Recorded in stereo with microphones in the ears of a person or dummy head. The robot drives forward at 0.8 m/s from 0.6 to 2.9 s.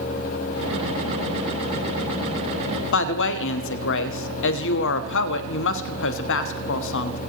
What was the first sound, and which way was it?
A woman speaking, 55° left (ahead or behind).